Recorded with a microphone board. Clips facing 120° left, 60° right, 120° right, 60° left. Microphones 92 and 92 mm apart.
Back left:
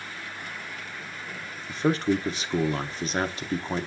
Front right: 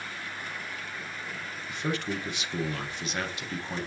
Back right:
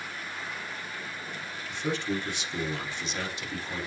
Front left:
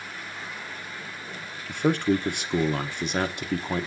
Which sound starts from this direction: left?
A man speaking, at 1.7 s.